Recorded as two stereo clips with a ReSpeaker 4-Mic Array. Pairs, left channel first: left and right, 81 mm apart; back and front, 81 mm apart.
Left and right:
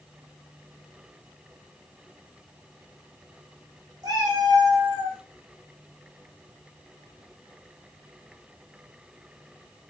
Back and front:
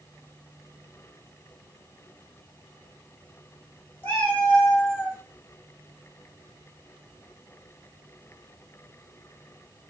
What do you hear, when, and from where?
4.0 s a cat meowing: 120° right, 1.1 m; by 5.2 s 70° right, 0.8 m